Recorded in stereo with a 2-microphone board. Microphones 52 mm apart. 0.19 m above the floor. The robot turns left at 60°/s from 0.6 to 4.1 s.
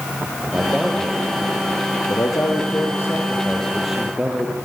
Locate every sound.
0.5 s a man speaking: 165° right, 6.5 m; by 4.7 s 15° right, 6.5 m